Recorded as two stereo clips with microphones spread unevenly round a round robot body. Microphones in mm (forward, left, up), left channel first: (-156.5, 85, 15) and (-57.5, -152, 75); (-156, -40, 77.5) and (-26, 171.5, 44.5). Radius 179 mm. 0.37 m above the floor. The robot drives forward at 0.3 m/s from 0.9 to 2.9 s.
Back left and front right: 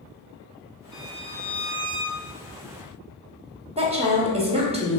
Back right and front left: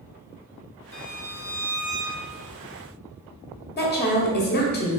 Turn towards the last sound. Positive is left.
turn(degrees=-140)